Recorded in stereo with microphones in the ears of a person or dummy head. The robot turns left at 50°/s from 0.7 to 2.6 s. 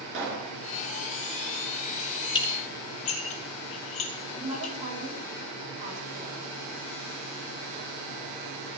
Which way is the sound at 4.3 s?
20° right (ahead or behind).